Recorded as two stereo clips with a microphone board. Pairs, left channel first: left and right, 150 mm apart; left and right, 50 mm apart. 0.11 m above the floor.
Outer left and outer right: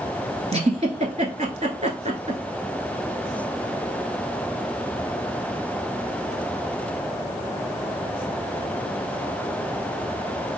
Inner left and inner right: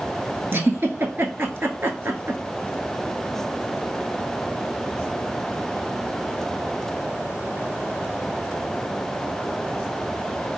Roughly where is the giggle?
Right.